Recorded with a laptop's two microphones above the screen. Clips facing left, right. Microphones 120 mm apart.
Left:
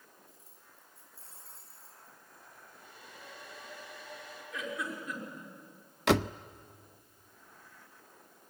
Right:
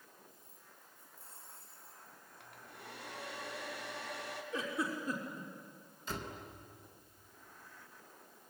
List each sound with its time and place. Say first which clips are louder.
0.3 s keys jangling: even; 85° left, 6.5 m; by 2.2 s 80° left, 6.5 m
2.4 s a hair dryer: right 4 dB; 75° right (ahead or behind), 3 m
4.5 s a giggle: right 1 dB; 30° right (ahead or behind), 6 m
6.1 s a door slam: left 16 dB; 80° left, 0.5 m